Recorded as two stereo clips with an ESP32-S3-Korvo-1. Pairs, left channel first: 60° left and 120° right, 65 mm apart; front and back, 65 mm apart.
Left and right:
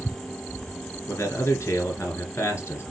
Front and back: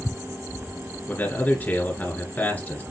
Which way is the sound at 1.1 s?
50° left.